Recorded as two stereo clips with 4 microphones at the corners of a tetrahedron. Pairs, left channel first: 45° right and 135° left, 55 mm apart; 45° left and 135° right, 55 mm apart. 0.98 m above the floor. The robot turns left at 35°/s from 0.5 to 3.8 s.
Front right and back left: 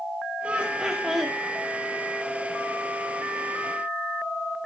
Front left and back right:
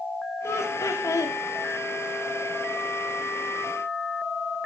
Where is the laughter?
70° left, 1.8 m; by 1.4 s 40° left, 1.8 m.